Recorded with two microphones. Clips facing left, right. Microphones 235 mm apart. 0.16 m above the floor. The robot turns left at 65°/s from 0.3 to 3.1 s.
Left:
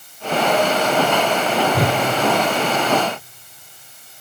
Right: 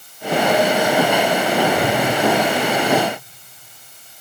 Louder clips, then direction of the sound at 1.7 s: Right 1 dB; 35° left (ahead or behind).